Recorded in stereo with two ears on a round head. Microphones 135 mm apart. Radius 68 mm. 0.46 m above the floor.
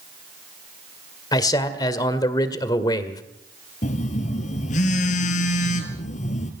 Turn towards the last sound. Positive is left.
turn(degrees=50)  # may be behind; listen again after turning